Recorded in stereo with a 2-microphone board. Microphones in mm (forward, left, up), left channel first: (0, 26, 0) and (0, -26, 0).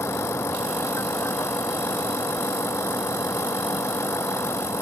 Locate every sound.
0.0 s a vehicle: 65° left (ahead or behind)